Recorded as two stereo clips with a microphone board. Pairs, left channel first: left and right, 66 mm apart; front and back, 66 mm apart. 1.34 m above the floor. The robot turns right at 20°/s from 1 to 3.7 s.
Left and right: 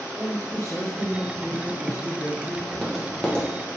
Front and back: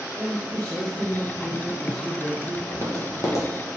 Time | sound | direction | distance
0.1 | a man speaking | 70° left | 1.2 m
2.7 | tapping | straight ahead | 0.6 m